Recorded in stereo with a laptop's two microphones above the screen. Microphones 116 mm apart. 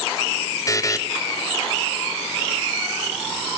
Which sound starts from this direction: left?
A buzzer, at 0.7 s.